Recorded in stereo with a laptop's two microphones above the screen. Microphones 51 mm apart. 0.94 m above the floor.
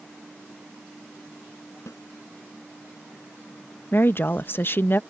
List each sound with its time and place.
1.9 s a snare drum: 80° left
3.9 s a woman speaking: 45° left (ahead or behind)